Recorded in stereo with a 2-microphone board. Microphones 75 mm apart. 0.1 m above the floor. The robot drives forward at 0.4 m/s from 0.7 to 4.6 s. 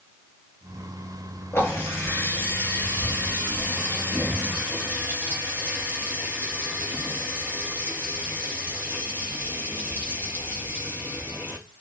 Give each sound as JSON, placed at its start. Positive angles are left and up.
{"t": 1.5, "sound": "a running tap", "side_deg": 30, "distance_m": 5.5}